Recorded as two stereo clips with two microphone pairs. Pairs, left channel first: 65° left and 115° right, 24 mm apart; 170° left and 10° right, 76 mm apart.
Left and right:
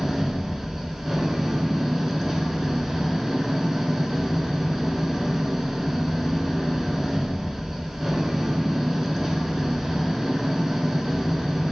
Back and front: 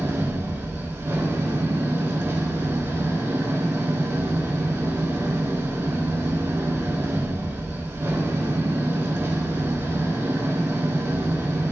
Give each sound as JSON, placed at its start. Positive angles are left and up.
{"t": 0.0, "sound": "an engine running", "azimuth_deg": -50, "distance_m": 1.1}